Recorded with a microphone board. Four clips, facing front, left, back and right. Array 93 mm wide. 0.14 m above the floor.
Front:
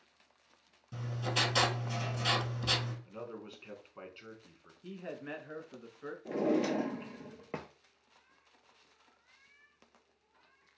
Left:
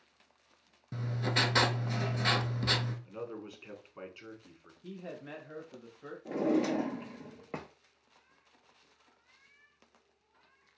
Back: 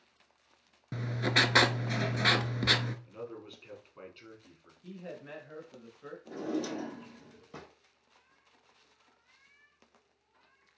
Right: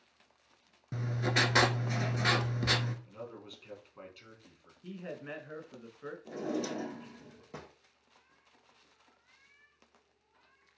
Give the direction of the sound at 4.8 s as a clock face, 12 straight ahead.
2 o'clock.